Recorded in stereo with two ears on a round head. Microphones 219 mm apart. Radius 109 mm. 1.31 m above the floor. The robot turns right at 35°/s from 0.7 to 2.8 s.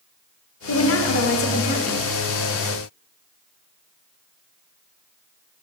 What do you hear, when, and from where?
0.7 s a woman speaking: 110° left, 0.9 m; by 2.0 s 160° left, 0.9 m